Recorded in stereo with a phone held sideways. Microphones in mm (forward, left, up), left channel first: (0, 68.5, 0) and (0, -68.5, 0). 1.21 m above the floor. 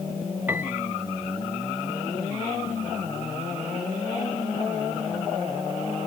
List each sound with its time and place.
0.5 s a piano: 15° right (ahead or behind)